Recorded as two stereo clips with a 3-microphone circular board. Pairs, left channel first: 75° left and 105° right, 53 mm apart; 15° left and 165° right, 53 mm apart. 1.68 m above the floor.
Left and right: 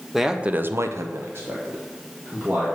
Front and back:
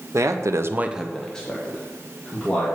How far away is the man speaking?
About 1.0 m.